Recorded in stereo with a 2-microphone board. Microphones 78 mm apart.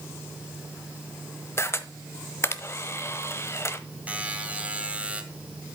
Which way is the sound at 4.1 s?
15° right (ahead or behind).